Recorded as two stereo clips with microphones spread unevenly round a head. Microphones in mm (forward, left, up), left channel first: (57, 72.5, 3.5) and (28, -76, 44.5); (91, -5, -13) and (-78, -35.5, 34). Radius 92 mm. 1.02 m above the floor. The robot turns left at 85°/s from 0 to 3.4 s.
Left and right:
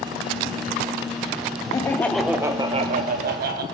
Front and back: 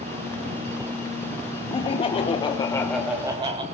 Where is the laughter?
45° left, 0.6 m; by 3.6 s 95° right, 0.6 m.